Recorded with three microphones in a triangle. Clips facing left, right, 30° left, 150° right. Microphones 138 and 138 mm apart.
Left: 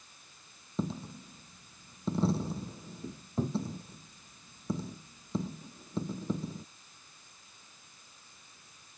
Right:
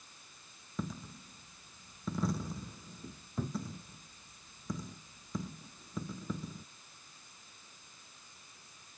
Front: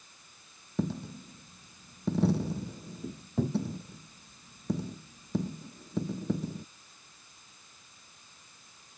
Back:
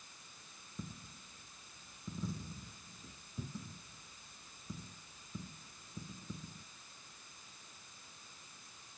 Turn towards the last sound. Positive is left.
turn(degrees=30)